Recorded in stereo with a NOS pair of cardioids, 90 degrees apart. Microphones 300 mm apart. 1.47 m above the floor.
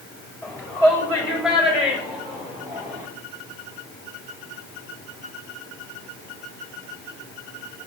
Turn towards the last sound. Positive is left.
turn(degrees=-15)